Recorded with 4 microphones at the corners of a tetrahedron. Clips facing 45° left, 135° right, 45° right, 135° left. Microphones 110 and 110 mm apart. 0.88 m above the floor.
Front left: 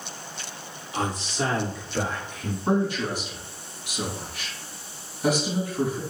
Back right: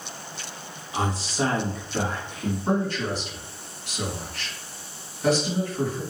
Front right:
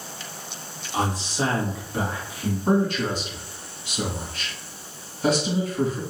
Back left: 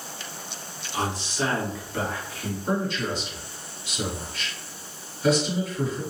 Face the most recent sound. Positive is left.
turn(degrees=-30)